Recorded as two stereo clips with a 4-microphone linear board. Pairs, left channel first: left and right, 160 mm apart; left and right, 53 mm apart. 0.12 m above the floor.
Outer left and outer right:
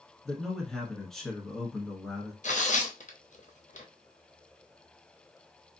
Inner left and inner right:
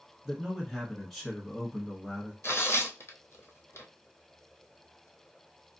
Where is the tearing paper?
55° left (ahead or behind), 0.9 m.